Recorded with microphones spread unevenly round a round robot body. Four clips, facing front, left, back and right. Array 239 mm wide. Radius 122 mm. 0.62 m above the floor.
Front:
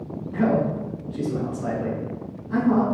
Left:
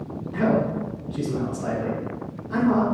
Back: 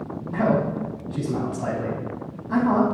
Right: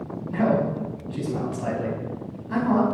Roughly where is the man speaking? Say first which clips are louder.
Even, even; behind.